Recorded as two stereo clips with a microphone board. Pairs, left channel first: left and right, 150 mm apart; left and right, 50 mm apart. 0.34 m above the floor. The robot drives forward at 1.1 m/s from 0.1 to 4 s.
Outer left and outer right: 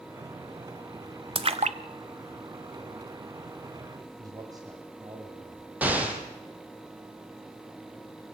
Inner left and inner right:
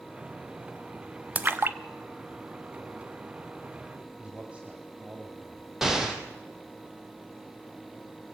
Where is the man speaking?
25° right (ahead or behind), 2 m.